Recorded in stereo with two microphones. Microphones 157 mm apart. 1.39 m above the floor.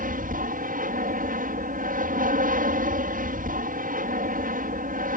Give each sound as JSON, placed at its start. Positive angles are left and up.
{"t": 0.0, "sound": "an aircraft", "side_deg": -60}